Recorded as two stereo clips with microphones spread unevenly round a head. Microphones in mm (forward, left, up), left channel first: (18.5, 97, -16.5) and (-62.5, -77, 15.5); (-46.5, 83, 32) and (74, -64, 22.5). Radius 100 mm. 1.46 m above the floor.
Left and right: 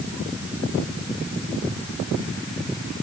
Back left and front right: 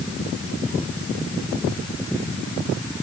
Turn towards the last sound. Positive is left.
No sound to turn to.